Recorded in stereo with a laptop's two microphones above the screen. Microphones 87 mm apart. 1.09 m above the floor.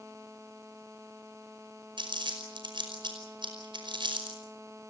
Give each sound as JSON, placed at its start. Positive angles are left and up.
{"t": 2.0, "sound": "crumpling", "side_deg": -65, "distance_m": 5.0}